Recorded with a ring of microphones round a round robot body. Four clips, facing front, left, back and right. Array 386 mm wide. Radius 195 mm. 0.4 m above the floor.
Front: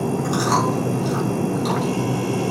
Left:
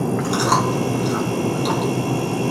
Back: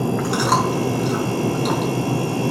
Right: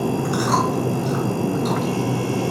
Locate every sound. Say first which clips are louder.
0.2 s chewing: left 2 dB, even; 115° left, 2.5 m